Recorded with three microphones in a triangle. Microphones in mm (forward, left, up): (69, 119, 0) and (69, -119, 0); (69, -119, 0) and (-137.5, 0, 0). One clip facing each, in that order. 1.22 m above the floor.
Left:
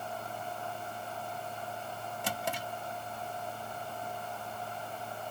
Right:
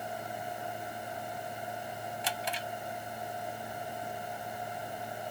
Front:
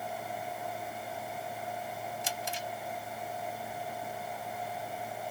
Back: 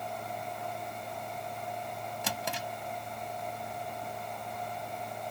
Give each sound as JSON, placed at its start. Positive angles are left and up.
{"t": 2.2, "sound": "a drawer", "azimuth_deg": 130}